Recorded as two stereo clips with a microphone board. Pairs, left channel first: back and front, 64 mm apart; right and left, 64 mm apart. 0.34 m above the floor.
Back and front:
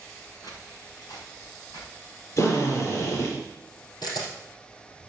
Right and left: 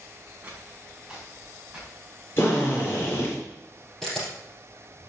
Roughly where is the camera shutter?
Behind.